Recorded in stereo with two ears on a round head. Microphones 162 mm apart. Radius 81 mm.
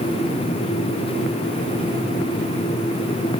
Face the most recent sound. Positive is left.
No sound to turn to.